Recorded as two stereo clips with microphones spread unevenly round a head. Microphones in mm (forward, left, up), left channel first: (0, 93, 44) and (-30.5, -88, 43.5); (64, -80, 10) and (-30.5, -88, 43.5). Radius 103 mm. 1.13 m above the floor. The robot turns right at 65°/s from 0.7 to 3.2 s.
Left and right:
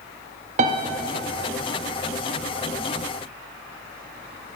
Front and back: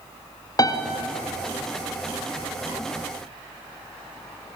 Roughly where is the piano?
Ahead right.